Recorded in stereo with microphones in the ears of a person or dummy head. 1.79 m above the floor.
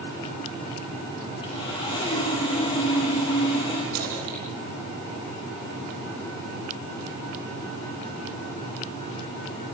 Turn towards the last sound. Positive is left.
turn(degrees=-75)  # may be behind; listen again after turning